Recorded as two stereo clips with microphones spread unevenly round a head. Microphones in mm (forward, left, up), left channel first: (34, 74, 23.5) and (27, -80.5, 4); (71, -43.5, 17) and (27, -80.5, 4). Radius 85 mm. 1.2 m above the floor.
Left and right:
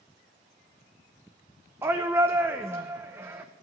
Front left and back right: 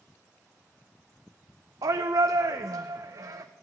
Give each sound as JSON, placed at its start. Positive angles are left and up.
{"t": 1.8, "sound": "a shout", "azimuth_deg": -165, "distance_m": 0.6}